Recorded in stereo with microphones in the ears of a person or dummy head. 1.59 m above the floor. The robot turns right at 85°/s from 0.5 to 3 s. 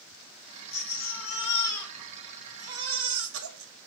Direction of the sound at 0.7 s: 80° left.